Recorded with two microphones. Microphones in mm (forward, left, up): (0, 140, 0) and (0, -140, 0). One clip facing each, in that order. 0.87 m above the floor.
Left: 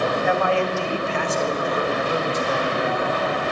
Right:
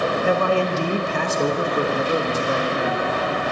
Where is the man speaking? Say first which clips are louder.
Right 3 dB; 40° right (ahead or behind), 1.3 m; by 3.2 s 25° right (ahead or behind), 1.9 m.